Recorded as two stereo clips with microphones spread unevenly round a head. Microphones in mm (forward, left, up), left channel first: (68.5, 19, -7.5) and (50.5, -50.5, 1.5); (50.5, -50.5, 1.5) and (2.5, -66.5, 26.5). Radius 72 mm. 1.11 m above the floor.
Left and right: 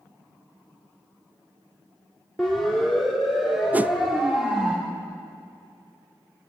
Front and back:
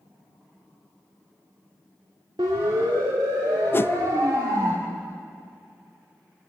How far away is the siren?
About 3 m.